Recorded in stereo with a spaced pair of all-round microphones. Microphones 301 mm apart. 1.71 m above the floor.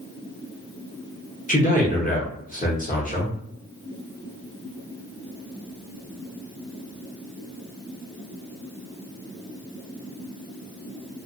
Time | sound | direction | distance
1.5 | a man speaking | 25° left (ahead or behind) | 0.9 m